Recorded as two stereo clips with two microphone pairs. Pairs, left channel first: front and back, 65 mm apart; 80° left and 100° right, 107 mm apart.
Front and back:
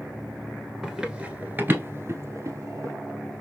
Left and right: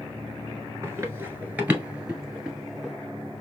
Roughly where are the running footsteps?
Right.